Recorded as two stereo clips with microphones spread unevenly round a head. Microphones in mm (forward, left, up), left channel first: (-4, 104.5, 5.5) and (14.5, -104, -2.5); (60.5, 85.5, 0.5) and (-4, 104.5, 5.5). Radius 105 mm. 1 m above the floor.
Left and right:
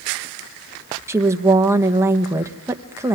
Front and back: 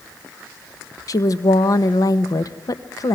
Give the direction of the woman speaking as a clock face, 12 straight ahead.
12 o'clock.